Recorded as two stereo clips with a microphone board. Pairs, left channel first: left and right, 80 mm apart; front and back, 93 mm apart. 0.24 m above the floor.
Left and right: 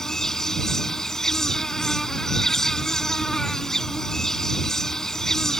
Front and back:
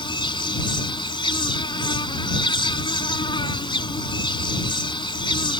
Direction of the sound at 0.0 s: 5° left.